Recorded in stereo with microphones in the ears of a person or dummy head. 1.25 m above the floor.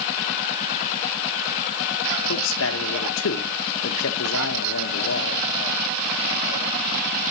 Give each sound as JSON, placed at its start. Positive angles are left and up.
{"t": 2.2, "sound": "a man speaking", "side_deg": 80, "distance_m": 1.1}